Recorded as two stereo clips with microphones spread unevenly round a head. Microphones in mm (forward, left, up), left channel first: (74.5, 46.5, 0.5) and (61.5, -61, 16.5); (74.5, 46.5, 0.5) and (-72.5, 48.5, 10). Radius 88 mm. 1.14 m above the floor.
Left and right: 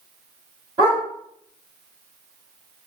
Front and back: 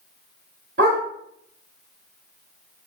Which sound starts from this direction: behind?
A dog barking, at 0.8 s.